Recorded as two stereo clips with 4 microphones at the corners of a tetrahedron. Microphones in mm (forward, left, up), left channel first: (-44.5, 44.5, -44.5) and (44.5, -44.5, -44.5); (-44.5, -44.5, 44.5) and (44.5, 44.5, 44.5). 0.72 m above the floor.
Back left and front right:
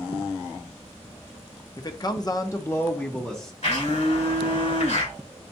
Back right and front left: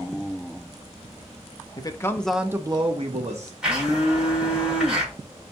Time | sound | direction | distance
1.8 | a man speaking | straight behind | 0.7 m
3.6 | a blender | 125° left | 2.5 m